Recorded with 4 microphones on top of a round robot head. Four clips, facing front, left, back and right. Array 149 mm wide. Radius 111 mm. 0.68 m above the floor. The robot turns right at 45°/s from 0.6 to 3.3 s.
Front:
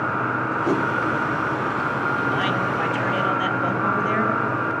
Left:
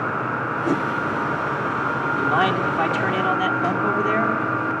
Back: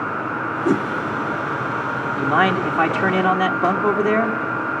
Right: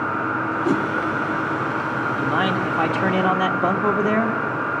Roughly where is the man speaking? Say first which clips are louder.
Left 2 dB, back 4 dB; behind.